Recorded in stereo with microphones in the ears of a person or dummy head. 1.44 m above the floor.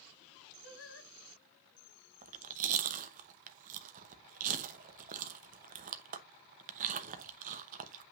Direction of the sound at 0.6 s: 70° left (ahead or behind).